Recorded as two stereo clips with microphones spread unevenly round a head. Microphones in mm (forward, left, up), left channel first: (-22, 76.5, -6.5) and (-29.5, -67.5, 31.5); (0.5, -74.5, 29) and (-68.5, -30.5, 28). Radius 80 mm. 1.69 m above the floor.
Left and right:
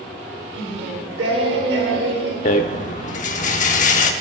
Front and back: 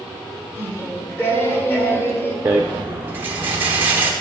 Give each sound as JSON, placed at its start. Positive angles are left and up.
{"t": 0.6, "sound": "singing", "azimuth_deg": -95, "distance_m": 1.6}
{"t": 2.5, "sound": "a rattle", "azimuth_deg": 90, "distance_m": 0.6}